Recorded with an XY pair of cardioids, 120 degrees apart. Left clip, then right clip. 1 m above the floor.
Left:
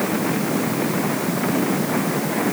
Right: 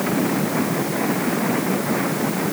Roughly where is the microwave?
I don't hear a microwave.